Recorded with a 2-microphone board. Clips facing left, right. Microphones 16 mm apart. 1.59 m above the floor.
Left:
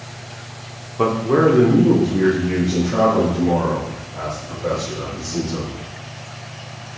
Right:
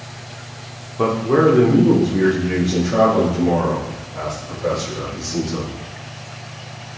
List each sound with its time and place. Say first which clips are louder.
1.0 s a man speaking: even; 15° left (ahead or behind), 0.9 m; by 5.7 s 55° right (ahead or behind), 4 m